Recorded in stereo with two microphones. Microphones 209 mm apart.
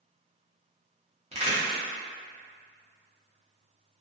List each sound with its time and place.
1.3 s a crack: 30° right (ahead or behind), 0.9 m